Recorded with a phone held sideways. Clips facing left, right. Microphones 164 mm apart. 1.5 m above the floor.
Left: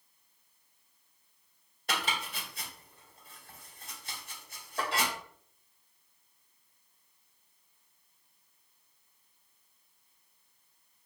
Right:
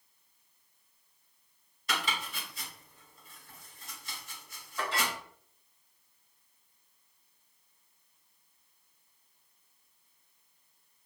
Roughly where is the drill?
No drill in this recording.